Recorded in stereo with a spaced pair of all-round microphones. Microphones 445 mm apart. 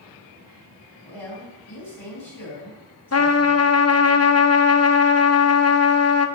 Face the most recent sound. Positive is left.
turn(degrees=35)  # may be behind; listen again after turning